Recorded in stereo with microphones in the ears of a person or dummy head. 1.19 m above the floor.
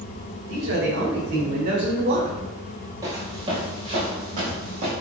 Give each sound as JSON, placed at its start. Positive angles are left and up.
{"t": 0.5, "sound": "a man speaking", "side_deg": -75, "distance_m": 3.0}
{"t": 3.0, "sound": "footsteps", "side_deg": -20, "distance_m": 1.9}